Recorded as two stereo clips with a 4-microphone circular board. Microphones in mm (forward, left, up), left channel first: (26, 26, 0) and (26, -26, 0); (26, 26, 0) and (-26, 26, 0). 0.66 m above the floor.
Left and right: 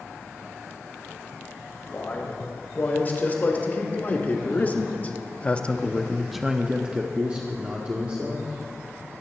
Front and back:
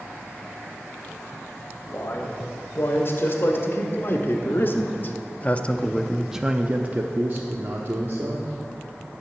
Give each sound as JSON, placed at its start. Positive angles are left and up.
{"t": 1.9, "sound": "a man speaking", "azimuth_deg": 35, "distance_m": 3.0}